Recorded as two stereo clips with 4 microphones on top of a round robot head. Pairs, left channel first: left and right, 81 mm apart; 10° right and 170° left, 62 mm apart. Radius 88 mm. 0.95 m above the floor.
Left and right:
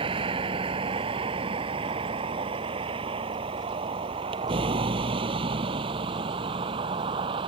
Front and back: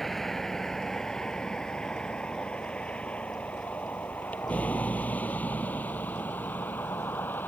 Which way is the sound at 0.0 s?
95° right.